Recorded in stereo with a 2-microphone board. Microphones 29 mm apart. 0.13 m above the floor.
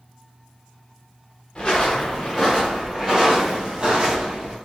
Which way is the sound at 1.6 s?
30° left (ahead or behind).